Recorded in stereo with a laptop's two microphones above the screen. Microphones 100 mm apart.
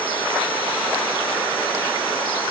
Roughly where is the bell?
No bell in this recording.